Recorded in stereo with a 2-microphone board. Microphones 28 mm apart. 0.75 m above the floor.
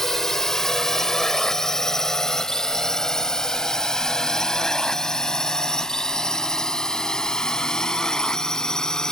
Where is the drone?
15° left (ahead or behind); by 9.1 s 20° left (ahead or behind).